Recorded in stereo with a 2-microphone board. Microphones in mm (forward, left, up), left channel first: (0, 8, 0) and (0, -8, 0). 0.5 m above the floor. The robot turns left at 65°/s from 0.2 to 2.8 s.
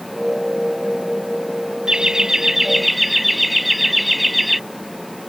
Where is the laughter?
110° right; by 4.6 s 170° right.